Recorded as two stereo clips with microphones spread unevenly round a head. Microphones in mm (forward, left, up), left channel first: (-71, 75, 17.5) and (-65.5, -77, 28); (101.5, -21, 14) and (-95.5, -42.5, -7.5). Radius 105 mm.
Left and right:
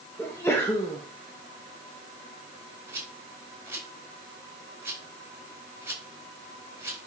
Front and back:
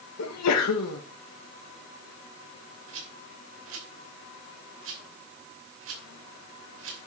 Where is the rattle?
160° right, 4.5 m.